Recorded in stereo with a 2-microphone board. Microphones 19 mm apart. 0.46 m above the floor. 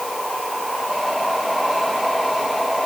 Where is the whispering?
No whispering in this recording.